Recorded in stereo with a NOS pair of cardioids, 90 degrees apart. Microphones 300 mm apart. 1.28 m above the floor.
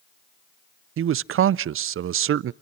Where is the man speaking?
45° right, 0.5 m.